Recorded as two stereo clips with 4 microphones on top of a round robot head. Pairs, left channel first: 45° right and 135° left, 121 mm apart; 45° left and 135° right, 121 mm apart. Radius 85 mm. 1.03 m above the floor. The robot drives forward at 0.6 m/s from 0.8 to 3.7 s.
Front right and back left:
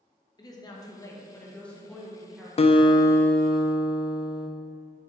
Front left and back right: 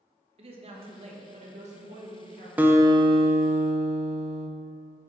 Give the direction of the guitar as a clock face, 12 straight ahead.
2 o'clock.